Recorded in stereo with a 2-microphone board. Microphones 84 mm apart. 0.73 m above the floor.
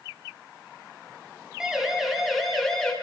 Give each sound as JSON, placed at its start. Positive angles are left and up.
{"t": 1.6, "sound": "a siren", "side_deg": -5, "distance_m": 5.5}